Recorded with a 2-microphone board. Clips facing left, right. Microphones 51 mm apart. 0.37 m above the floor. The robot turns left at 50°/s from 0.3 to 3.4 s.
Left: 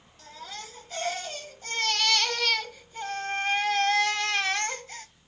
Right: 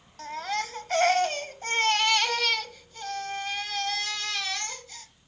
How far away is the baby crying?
About 0.7 m.